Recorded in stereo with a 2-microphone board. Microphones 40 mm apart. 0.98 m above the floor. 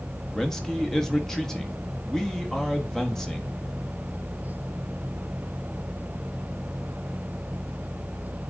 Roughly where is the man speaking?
Centre.